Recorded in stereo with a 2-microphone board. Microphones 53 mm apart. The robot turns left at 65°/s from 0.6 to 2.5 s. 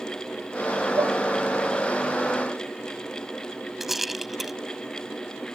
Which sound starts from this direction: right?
Dishes clattering, at 1.0 s.